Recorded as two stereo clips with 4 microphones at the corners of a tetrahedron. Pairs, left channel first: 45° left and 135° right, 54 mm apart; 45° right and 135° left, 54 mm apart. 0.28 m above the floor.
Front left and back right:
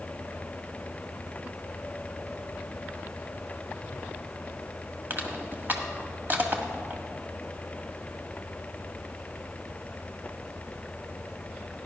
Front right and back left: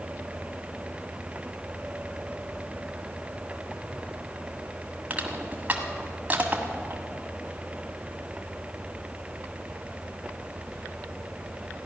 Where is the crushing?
175° right, 1.5 m.